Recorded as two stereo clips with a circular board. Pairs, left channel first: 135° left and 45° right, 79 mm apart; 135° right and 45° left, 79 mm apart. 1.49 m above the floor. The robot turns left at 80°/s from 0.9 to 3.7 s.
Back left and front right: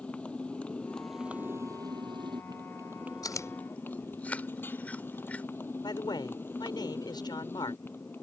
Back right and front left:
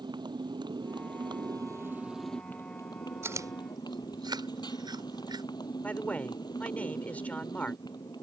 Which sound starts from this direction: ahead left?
A motorcycle, at 0.0 s.